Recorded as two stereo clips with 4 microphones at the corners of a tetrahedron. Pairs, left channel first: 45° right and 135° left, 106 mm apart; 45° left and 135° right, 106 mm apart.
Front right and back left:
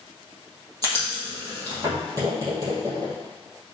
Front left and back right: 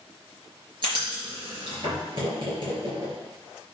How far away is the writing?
About 4.5 m.